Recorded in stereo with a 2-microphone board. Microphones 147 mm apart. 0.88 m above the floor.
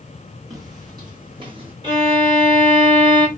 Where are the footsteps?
25° right (ahead or behind), 2 m; by 1.7 s 40° right (ahead or behind), 1.8 m.